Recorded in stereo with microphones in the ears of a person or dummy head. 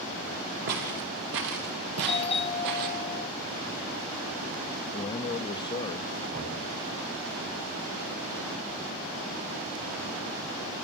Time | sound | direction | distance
0.7 | footsteps | 45° right (ahead or behind) | 3 m
2.0 | a doorbell | 30° left (ahead or behind) | 0.9 m
4.9 | a man speaking | 25° left (ahead or behind) | 0.6 m
6.3 | knocking | 40° right (ahead or behind) | 9 m